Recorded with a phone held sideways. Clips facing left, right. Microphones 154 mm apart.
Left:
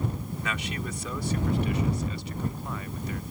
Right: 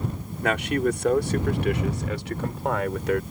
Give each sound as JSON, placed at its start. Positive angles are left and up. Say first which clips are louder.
{"t": 0.4, "sound": "a man speaking", "louder": "right 14 dB", "side_deg": -60}